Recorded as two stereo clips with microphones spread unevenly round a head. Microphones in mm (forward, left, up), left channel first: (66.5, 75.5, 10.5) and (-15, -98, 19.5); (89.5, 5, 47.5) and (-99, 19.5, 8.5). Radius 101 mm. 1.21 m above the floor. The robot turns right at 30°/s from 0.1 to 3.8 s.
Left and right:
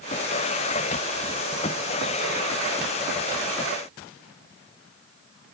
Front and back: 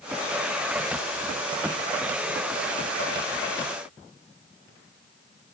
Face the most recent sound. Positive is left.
No sound to turn to.